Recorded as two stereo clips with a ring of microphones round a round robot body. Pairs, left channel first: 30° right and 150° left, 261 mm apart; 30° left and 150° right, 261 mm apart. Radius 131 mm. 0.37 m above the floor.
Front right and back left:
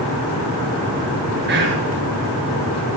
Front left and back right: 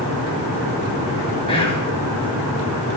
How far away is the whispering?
About 5 m.